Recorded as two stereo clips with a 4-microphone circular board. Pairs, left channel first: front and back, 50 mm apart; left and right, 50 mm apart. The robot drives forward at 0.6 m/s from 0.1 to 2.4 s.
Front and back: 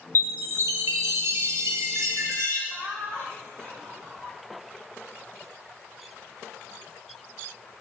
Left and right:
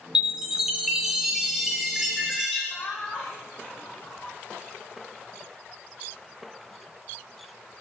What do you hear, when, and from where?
0.1 s a chime: 165° right, 0.5 m; by 2.6 s 175° right, 1.9 m
2.7 s laughter: 150° left, 3.5 m